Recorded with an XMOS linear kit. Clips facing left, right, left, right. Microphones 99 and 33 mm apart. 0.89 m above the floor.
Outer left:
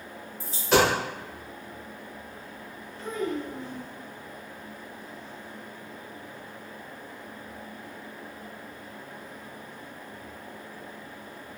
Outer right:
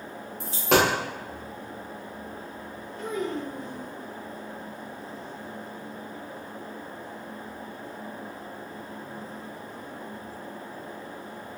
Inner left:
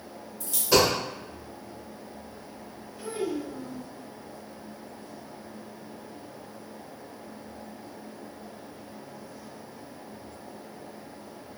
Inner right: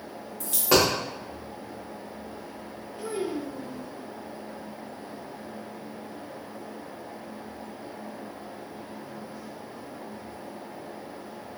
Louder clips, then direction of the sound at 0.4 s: Even, even; 65° right (ahead or behind).